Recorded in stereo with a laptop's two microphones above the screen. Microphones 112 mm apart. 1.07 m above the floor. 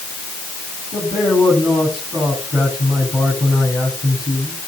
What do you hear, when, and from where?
0.9 s a man speaking: 45° left (ahead or behind), 8.5 m